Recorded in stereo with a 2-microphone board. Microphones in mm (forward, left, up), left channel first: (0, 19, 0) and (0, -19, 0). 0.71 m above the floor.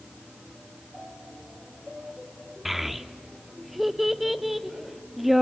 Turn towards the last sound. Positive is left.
turn(degrees=-5)  # may be behind; listen again after turning